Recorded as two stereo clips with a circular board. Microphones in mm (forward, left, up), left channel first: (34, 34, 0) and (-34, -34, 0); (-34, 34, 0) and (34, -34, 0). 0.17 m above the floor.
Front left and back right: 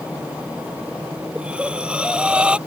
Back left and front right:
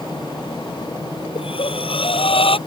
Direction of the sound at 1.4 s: 145° left.